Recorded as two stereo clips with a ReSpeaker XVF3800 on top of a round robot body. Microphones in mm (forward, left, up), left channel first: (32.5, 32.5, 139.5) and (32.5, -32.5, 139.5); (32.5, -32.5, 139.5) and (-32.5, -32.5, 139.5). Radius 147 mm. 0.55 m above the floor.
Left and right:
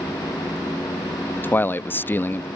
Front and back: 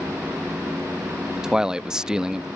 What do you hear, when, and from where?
1.4 s a man speaking: 110° left